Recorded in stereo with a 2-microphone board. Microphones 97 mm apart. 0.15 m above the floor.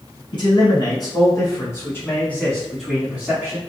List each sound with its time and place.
0.3 s a man speaking: 55° left (ahead or behind), 1.8 m; by 3.6 s 25° right (ahead or behind), 1.2 m